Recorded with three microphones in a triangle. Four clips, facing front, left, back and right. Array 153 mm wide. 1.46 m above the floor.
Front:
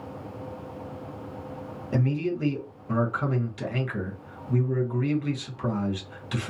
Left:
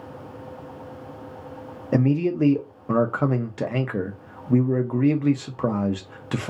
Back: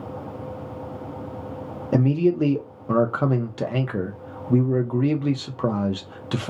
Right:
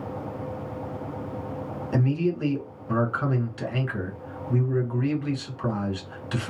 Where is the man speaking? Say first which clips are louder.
Left 5 dB, back 8 dB; 135° left, 0.6 m.